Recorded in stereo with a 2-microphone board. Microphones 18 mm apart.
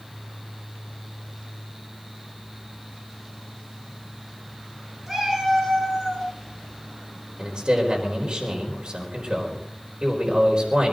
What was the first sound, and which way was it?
A cat meowing, 30° right (ahead or behind).